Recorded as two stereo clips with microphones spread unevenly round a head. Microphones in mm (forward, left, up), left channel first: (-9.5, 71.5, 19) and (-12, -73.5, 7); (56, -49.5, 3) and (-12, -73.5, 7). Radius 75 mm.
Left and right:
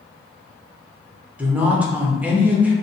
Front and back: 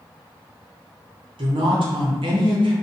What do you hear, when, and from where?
1.4 s a woman speaking: 170° right, 0.9 m